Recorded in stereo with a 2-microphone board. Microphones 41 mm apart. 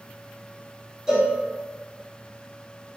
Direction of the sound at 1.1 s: 15° right (ahead or behind).